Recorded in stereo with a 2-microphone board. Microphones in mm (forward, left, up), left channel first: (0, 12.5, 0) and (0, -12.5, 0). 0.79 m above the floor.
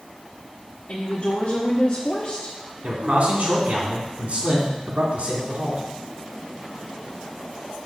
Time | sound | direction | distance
0.9 | a woman speaking | 65° left (ahead or behind) | 1.3 m
2.8 | a man speaking | 60° right (ahead or behind) | 2.5 m